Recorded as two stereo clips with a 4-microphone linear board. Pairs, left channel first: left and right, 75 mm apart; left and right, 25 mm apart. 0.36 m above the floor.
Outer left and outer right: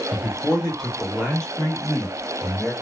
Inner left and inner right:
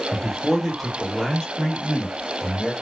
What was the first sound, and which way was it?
A man speaking, 5° left (ahead or behind).